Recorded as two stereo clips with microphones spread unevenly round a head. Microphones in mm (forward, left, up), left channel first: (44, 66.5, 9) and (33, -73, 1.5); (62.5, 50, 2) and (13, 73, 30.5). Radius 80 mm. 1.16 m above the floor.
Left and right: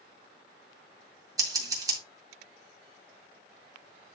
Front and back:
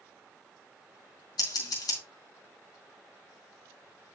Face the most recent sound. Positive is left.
turn(degrees=-30)